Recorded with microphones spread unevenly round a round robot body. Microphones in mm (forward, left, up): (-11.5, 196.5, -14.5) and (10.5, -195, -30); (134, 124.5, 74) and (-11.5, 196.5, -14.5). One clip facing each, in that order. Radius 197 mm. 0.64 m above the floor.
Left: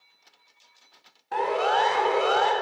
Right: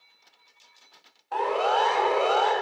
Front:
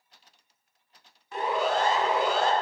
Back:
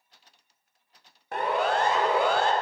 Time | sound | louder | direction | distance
1.3 | a siren | even, back 1 dB | 155° left | 4 m